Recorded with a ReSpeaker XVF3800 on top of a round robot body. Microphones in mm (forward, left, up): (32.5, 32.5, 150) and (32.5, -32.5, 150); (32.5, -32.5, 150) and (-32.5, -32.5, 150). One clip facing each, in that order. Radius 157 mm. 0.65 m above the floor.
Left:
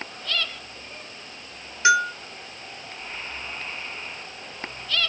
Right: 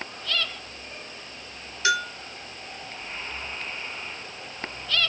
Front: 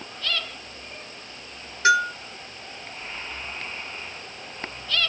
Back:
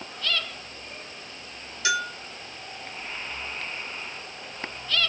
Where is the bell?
30° left, 1.5 m.